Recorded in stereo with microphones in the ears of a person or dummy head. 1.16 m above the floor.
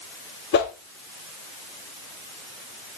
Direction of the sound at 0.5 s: 55° left (ahead or behind).